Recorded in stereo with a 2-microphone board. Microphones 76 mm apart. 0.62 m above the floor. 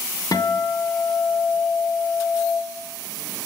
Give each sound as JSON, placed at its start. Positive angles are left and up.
{"t": 0.3, "sound": "a guitar", "side_deg": 55, "distance_m": 0.7}